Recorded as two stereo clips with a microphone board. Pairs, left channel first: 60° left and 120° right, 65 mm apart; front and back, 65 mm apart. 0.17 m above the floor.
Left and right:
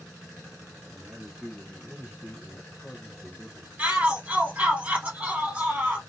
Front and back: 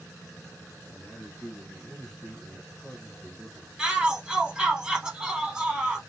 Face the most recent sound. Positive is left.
turn(degrees=-125)